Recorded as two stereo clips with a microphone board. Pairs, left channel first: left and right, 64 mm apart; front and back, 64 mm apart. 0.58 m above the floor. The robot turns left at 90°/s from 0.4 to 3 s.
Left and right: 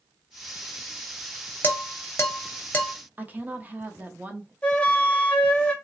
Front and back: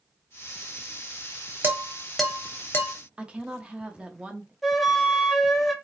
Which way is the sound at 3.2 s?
125° right.